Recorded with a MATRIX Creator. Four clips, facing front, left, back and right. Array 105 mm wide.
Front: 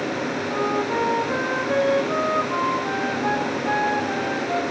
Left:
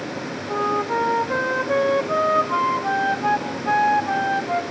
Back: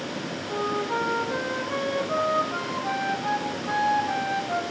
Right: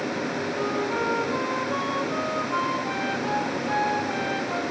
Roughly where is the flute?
Left.